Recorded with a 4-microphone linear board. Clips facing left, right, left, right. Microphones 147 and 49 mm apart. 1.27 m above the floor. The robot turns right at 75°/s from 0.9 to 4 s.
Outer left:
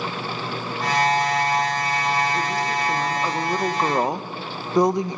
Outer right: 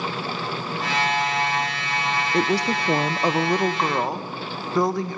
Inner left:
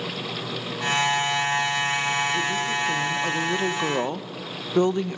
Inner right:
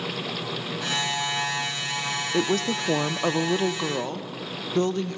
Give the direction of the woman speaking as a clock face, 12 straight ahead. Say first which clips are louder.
Outer right 3 dB, even; 4 o'clock.